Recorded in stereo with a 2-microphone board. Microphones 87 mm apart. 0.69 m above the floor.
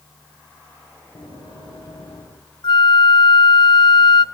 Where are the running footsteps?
75° left (ahead or behind), 7.5 m.